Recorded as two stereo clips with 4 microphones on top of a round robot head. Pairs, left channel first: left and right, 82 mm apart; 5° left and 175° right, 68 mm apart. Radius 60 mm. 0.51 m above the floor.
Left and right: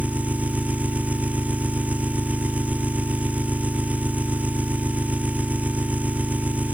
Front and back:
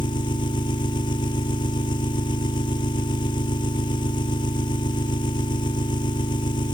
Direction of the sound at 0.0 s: 15° right.